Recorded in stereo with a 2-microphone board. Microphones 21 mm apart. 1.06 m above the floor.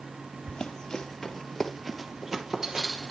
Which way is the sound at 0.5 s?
35° left (ahead or behind).